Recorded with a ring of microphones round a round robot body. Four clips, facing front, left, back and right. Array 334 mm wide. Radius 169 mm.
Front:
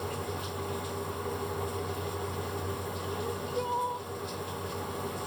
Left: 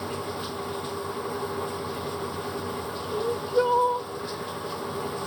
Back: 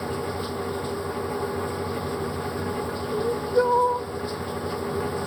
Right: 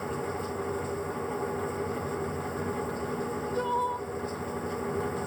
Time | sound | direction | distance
0.0 | running water | 100° left | ?
3.1 | crying | 150° left | ?